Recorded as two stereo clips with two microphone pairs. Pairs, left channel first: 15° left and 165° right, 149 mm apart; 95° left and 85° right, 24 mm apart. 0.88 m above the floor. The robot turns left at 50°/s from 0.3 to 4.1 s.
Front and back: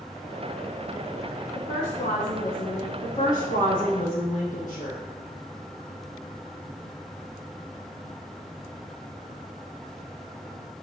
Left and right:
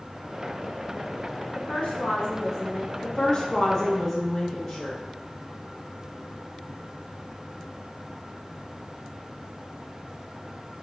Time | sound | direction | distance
1.6 | a woman speaking | 60° left | 1.0 m
3.0 | a woman speaking | 55° left | 1.2 m